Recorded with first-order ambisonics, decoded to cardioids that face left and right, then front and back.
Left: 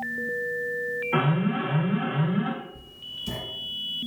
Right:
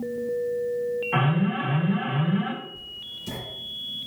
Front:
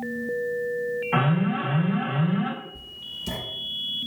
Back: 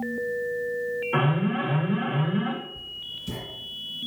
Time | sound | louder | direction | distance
1.1 | an alarm | even, front 1 dB | 15° right | 1.9 m
2.8 | writing | right 1 dB, back 1 dB | straight ahead | 1.4 m